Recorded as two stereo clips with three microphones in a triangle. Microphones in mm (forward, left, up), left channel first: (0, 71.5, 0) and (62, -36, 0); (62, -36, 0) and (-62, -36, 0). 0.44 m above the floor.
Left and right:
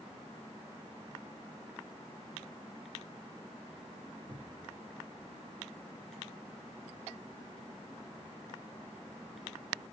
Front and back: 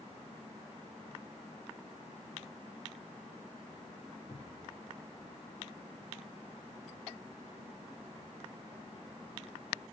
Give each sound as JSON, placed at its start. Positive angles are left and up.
{"t": 4.3, "sound": "a cupboard door", "azimuth_deg": -15, "distance_m": 1.0}